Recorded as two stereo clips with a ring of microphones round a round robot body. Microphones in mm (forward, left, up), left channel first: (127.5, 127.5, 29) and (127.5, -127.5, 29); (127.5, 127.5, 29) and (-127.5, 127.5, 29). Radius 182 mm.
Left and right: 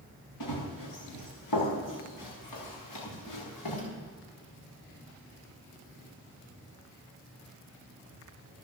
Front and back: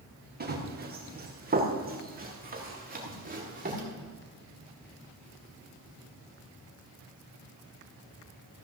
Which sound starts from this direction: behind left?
Running footsteps, at 0.4 s.